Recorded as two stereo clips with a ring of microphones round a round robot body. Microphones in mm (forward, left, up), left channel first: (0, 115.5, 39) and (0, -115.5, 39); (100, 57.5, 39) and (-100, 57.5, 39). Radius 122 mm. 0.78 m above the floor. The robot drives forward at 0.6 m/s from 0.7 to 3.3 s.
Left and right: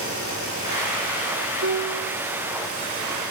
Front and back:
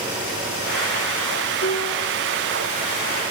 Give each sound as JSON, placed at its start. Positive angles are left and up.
{"t": 1.6, "sound": "a piano", "azimuth_deg": -50, "distance_m": 2.5}